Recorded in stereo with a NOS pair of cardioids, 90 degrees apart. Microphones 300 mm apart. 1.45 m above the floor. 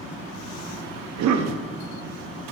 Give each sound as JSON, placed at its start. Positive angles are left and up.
{"t": 1.0, "sound": "a cough", "azimuth_deg": -70, "distance_m": 0.6}